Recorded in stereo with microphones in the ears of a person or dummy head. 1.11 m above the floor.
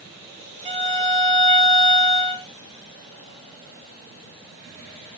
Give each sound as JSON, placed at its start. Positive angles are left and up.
{"t": 0.7, "sound": "a violin", "side_deg": -30, "distance_m": 0.8}